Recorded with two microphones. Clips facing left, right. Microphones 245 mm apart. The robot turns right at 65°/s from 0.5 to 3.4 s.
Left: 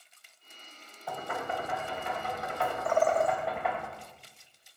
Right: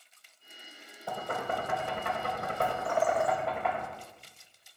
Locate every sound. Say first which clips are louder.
1.1 s knocking: right 1 dB; 30° right (ahead or behind), 2.5 m; by 3.9 s centre (ahead or behind), 2.5 m
2.9 s a bird: left 3 dB; 120° left, 0.9 m; by 3.4 s 155° left, 0.9 m